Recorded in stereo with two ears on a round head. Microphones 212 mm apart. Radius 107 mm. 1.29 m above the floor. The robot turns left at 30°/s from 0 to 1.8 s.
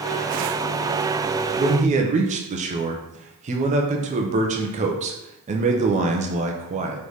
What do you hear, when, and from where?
1.6 s a man speaking: 25° right (ahead or behind), 0.6 m; by 7.0 s 30° right (ahead or behind), 0.6 m